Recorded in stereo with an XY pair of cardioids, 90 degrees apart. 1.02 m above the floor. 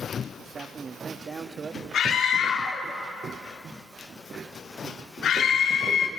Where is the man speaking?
45° right, 1.5 m.